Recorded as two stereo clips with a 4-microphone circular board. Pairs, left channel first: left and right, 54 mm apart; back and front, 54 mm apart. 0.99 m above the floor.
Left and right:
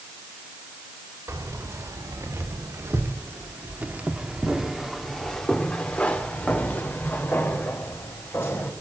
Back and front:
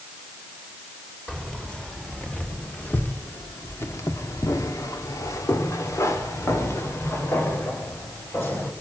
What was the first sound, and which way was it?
Keys jangling, 105° right.